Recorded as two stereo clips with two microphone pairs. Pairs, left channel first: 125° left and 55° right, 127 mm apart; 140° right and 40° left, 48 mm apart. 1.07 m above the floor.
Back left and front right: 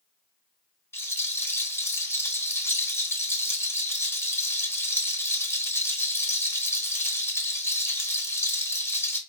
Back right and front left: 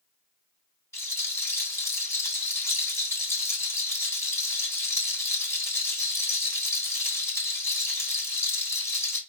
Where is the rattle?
160° right, 1.2 m.